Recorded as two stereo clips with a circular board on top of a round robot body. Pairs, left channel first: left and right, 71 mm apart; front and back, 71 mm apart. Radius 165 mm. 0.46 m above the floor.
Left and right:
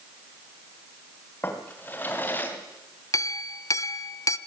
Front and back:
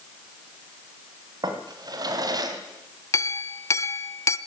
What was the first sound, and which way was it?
A drawer, 155° left.